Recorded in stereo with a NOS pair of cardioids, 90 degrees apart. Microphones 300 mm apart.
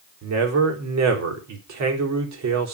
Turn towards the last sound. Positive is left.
turn(degrees=-60)